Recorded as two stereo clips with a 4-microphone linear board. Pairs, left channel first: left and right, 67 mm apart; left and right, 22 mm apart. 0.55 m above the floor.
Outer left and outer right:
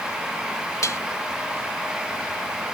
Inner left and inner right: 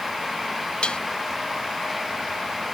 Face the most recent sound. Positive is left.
turn(degrees=60)  # may be behind; listen again after turning